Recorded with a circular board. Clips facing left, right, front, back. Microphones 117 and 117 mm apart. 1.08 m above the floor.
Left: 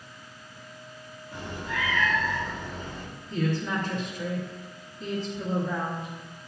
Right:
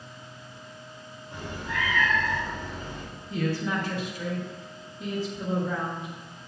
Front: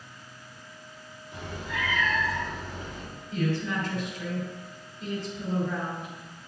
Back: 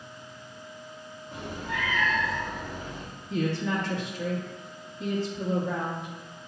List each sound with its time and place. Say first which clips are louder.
1.3 s a cat meowing: even, back 1 dB; 150° right, 3 m; by 3.0 s 155° right, 2.0 m
3.3 s a woman speaking: even, back 1 dB; 175° right, 1.4 m